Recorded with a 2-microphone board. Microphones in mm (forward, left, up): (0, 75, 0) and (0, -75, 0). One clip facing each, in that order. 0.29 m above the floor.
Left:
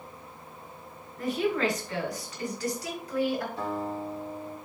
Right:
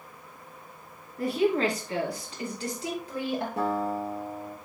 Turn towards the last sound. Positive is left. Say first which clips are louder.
# right 4 dB
turn(degrees=-75)  # may be behind; listen again after turning